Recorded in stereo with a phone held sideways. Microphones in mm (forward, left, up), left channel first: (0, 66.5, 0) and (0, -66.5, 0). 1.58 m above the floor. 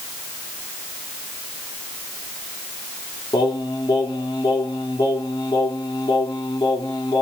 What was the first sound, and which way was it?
Singing, 30° left (ahead or behind).